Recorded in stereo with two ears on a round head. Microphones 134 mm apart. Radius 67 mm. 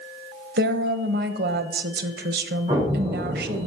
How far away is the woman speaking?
About 1.0 m.